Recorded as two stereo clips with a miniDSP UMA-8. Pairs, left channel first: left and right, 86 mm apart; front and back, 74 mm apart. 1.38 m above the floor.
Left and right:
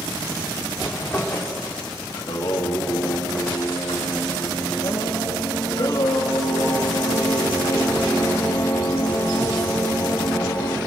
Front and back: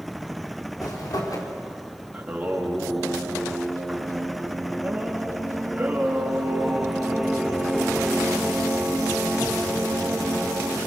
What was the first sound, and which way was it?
A zipper, 25° left.